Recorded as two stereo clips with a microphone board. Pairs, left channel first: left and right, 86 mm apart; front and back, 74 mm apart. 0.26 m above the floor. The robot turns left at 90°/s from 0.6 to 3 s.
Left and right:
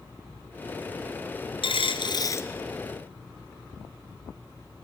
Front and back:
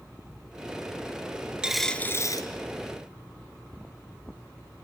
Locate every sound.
1.6 s a dropped coin: 100° left, 1.1 m; by 2.5 s 25° left, 1.1 m